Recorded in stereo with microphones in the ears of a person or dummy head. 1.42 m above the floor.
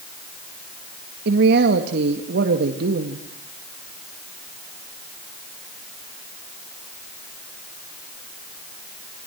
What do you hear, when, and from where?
1.2 s a man speaking: 60° right (ahead or behind), 1.6 m